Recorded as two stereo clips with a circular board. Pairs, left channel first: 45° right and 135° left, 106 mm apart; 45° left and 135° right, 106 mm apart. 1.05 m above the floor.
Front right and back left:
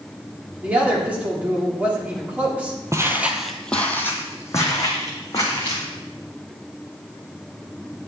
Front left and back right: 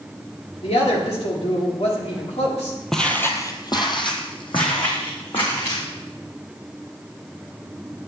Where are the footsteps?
130° left, 1.1 m; by 5.8 s 10° left, 4 m.